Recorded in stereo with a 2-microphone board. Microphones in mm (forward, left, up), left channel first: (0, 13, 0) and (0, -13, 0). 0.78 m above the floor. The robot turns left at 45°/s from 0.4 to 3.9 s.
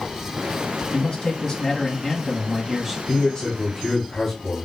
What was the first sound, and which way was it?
A man speaking, 30° left (ahead or behind).